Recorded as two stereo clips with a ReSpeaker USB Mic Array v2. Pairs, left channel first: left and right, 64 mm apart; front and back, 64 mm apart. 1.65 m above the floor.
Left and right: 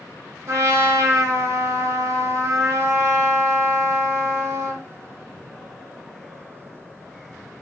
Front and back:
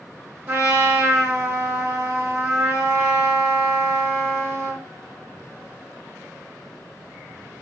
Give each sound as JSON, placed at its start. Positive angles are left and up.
{"t": 0.5, "sound": "a trumpet", "azimuth_deg": -130, "distance_m": 1.1}